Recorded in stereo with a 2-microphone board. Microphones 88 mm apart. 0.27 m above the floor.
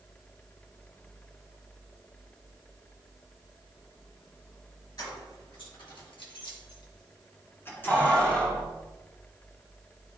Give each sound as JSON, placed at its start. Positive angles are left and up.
{"t": 5.0, "sound": "keys jangling", "side_deg": 55, "distance_m": 3.0}